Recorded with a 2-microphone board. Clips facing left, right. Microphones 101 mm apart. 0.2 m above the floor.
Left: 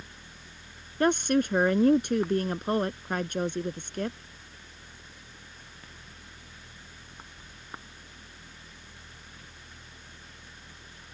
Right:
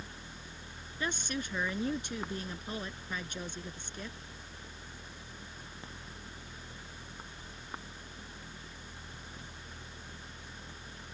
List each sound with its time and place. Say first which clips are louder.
1.0 s a woman speaking: left 13 dB; 60° left (ahead or behind)